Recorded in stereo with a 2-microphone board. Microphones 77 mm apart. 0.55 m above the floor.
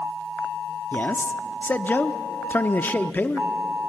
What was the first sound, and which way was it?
A man speaking, 25° left (ahead or behind).